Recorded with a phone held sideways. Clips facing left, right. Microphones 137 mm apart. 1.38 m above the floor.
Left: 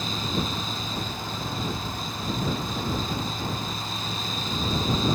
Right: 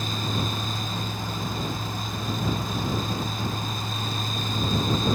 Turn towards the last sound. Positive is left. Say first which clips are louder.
# even
turn(degrees=-55)  # may be behind; listen again after turning